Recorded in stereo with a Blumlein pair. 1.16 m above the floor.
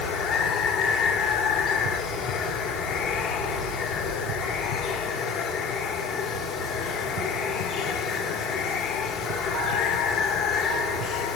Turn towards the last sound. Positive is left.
turn(degrees=30)